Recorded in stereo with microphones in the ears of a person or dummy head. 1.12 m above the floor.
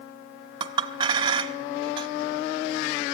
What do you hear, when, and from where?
0.6 s a clink: 25° right (ahead or behind), 1.2 m